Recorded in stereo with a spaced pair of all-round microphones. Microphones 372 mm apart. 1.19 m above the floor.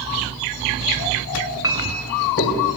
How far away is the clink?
About 3 m.